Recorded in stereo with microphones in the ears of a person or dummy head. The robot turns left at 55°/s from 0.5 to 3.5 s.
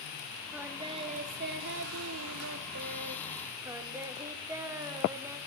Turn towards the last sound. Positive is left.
turn(degrees=-170)